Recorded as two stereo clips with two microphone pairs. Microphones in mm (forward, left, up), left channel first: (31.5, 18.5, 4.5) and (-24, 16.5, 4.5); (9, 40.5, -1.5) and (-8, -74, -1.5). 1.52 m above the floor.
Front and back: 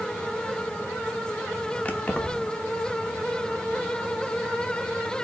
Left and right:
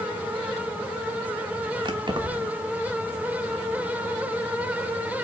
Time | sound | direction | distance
1.9 | keys jangling | 60° right | 1.2 m